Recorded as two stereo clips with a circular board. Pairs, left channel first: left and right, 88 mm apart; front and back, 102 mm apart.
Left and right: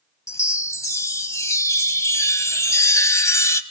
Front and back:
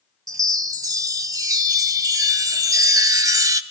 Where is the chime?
135° left, 0.7 m.